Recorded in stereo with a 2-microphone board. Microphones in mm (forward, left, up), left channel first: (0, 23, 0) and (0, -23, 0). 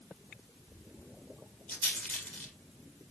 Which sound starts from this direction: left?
A rattle, at 1.7 s.